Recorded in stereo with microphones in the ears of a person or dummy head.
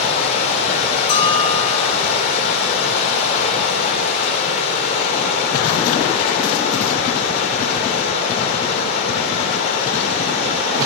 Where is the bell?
40° left (ahead or behind), 3.5 m.